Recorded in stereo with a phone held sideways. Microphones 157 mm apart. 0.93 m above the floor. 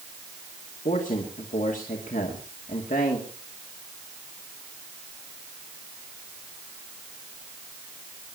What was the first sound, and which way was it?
A man speaking, 60° left (ahead or behind).